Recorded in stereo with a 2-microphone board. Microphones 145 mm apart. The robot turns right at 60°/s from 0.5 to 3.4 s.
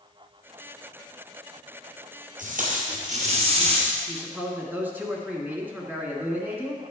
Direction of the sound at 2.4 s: 105° right.